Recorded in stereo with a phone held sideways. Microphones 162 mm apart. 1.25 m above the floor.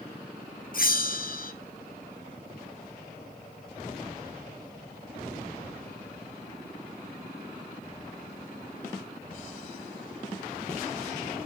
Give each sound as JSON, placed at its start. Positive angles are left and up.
{"t": 0.7, "sound": "a bell", "side_deg": 60, "distance_m": 1.1}